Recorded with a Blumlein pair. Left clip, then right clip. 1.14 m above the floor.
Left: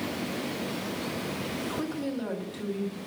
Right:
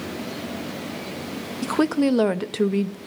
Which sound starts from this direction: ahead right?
A woman speaking, at 1.6 s.